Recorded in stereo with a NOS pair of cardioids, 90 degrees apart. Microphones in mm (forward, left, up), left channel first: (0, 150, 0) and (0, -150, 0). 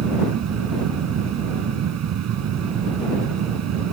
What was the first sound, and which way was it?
A fan, 65° right.